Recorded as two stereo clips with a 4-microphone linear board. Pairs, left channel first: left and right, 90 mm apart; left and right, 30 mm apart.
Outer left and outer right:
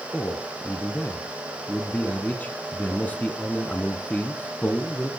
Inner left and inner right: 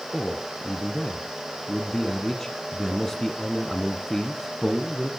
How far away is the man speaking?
About 1.1 m.